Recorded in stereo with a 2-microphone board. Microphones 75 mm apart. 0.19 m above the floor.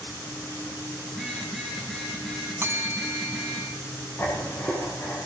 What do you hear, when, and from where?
1.1 s a phone buzzing: 10° left (ahead or behind), 9 m
2.6 s a bell: 30° right (ahead or behind), 1.4 m
4.2 s writing: 25° left (ahead or behind), 9.5 m